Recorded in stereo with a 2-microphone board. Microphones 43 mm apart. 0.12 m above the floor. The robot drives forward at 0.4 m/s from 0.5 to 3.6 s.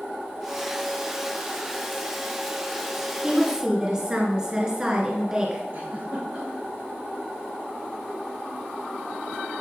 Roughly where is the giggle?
Right.